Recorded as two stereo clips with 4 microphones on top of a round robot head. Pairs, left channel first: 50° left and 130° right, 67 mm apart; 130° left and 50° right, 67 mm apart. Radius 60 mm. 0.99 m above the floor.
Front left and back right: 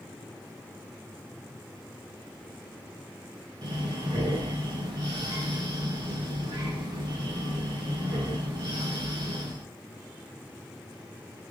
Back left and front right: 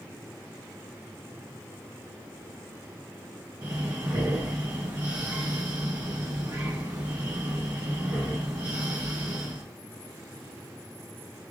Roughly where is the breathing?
Right.